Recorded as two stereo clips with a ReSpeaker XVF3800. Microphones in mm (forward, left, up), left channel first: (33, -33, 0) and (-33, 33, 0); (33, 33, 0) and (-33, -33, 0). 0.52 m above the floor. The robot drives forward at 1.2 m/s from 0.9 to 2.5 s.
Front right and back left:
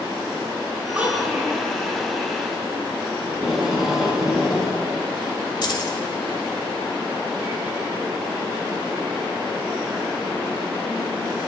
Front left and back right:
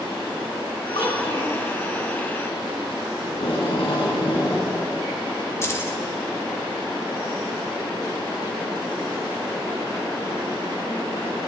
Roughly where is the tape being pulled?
Ahead left.